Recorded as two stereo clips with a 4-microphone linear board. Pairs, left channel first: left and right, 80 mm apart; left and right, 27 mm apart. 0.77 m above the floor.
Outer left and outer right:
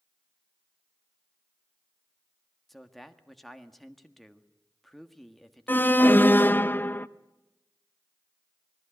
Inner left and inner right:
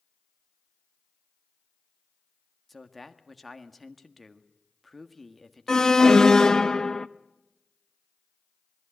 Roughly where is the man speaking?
Centre.